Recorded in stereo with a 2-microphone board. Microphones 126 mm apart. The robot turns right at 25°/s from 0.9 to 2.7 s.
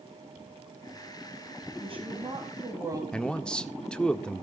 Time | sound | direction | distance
1.8 | a woman speaking | 50° right (ahead or behind) | 3 m
3.1 | a man speaking | 5° left (ahead or behind) | 1.1 m